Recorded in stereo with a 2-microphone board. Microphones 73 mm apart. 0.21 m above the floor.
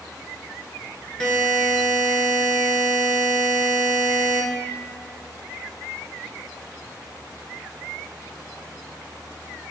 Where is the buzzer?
10° left (ahead or behind), 0.6 m.